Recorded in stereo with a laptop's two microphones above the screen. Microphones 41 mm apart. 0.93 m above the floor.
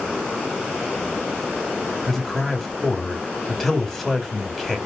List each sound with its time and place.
2.1 s a man speaking: centre (ahead or behind), 1.7 m